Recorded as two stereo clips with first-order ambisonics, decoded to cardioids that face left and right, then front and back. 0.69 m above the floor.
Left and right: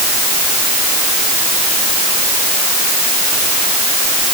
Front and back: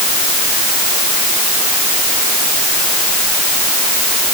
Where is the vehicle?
No vehicle in this recording.